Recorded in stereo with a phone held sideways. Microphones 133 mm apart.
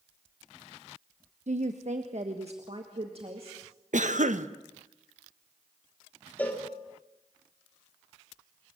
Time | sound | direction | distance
1.5 | a woman speaking | 65° right (ahead or behind) | 1.1 m
3.9 | a cough | 75° right (ahead or behind) | 1.2 m
6.4 | a cowbell | 15° left (ahead or behind) | 3 m